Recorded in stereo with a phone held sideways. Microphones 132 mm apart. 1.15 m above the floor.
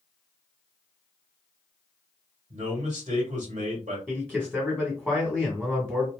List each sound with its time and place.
2.5 s a man speaking: 65° right (ahead or behind), 1.7 m
4.1 s a man speaking: 5° right (ahead or behind), 1.2 m